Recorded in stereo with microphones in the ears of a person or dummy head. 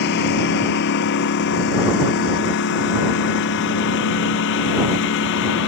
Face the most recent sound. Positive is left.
turn(degrees=70)  # may be behind; listen again after turning